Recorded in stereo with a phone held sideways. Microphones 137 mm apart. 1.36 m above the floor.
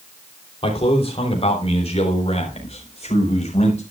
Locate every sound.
0.6 s a man speaking: 45° left (ahead or behind), 3.5 m; by 3.8 s 55° left (ahead or behind), 5 m